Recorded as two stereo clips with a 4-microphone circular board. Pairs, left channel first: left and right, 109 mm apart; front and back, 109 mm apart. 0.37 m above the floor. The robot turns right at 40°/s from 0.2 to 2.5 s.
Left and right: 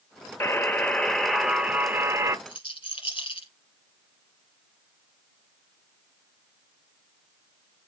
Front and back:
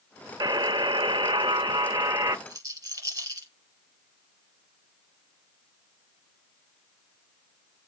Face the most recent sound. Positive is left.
turn(degrees=120)